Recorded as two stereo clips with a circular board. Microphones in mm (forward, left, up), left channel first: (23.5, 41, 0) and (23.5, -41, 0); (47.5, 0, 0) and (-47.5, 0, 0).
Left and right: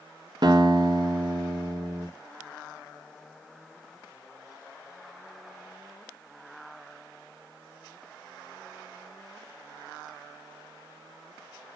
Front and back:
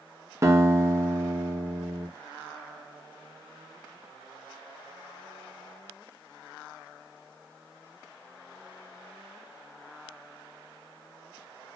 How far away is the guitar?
About 2 m.